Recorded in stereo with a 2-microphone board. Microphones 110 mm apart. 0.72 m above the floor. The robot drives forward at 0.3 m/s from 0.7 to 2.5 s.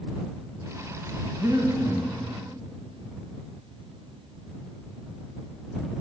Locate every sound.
1.4 s breathing: 30° right (ahead or behind), 1.5 m; by 2.1 s 25° right (ahead or behind), 1.7 m